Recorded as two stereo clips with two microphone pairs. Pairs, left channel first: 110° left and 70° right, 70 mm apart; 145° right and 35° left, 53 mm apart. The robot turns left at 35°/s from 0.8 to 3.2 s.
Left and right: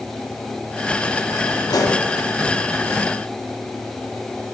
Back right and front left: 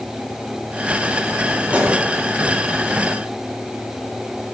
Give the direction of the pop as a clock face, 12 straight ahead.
9 o'clock.